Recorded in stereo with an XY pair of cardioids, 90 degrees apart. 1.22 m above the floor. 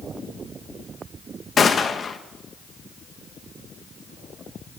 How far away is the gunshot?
About 0.7 m.